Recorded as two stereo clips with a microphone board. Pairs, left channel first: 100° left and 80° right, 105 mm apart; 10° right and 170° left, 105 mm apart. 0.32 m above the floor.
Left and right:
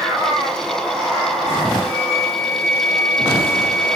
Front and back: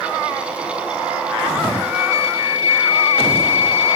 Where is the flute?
140° right, 2.5 m.